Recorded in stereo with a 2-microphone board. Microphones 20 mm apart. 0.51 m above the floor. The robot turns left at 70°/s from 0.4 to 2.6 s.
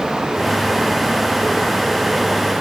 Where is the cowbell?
No cowbell in this recording.